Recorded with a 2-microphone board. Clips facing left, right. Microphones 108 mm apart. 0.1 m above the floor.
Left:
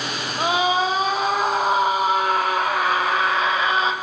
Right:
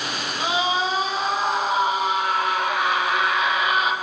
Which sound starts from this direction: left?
A scream, at 0.4 s.